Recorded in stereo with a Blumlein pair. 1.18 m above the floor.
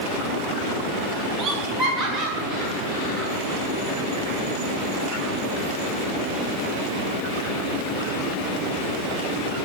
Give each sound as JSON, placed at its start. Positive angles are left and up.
{"t": 1.4, "sound": "laughter", "azimuth_deg": -25, "distance_m": 0.7}